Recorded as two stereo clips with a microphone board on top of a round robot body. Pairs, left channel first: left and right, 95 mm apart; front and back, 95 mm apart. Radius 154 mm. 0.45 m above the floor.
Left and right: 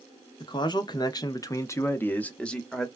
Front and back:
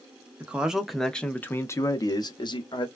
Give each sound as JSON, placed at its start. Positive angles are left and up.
{"t": 0.4, "sound": "a man speaking", "azimuth_deg": 105, "distance_m": 1.0}